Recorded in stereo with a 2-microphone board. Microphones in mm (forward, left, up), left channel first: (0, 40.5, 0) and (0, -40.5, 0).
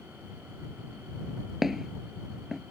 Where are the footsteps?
5° right (ahead or behind).